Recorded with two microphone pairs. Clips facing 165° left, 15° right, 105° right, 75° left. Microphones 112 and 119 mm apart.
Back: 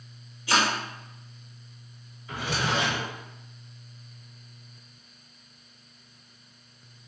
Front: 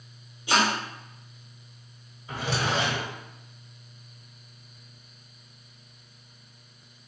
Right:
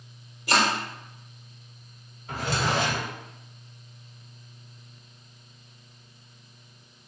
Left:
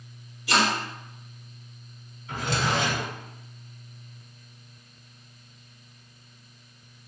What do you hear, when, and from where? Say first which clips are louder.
0.5 s chopping: front 1 dB, even; 80° right, 1.2 m
2.3 s a drawer: front 1 dB, even; 75° right, 1.5 m